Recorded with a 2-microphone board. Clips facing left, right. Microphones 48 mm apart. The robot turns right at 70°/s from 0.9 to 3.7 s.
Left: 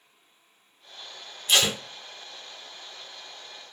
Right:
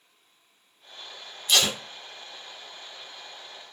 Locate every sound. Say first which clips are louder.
1.5 s tape being pulled: left 1 dB; 25° left (ahead or behind), 1.9 m; by 1.8 s 15° left (ahead or behind), 1.9 m